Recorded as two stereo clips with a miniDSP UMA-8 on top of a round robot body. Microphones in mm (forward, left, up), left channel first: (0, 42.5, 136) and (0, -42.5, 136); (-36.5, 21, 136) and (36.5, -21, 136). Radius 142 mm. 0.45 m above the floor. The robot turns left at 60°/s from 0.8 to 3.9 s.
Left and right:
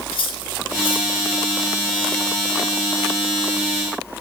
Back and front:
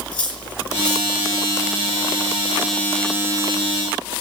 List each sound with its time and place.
0.1 s cutlery clinking: 70° left, 7.5 m; by 1.1 s 50° left, 7.5 m